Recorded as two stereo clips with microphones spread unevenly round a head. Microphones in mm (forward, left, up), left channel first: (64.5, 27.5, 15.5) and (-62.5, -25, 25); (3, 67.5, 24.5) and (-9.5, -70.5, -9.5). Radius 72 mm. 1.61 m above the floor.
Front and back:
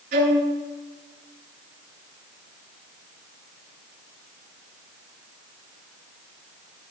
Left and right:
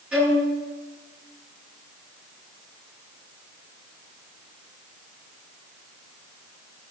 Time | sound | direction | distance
0.1 | a violin | straight behind | 8 m